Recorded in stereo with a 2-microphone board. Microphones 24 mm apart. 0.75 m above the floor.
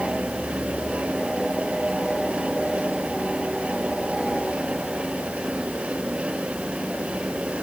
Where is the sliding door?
I don't hear a sliding door.